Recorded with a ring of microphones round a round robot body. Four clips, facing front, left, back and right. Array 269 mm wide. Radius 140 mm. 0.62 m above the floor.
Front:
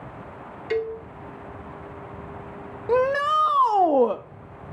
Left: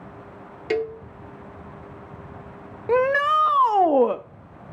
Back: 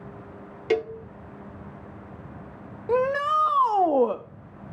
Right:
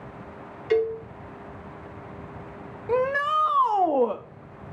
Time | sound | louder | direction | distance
0.7 | a cowbell | right 3 dB, back 1 dB | 140° left | 0.7 m
2.9 | a shout | left 4 dB, front 2 dB | 70° left | 0.6 m